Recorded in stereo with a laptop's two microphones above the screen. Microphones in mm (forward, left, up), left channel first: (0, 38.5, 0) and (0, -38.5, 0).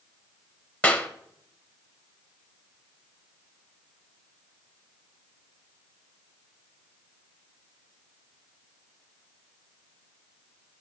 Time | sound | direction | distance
0.8 | a clap | 20° left (ahead or behind) | 0.7 m